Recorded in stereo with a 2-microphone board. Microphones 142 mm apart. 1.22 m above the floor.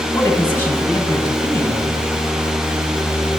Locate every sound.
0.1 s a man speaking: 15° left (ahead or behind), 1.6 m